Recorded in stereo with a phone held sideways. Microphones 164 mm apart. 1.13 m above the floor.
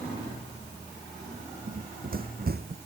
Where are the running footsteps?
50° right (ahead or behind); by 2.8 s 65° right (ahead or behind).